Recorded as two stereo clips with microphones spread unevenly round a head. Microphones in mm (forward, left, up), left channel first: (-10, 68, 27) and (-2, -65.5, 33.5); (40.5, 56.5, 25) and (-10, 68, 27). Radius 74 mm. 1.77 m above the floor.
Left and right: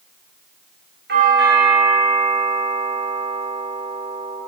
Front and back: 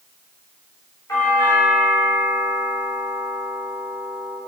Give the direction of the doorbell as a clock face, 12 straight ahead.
3 o'clock.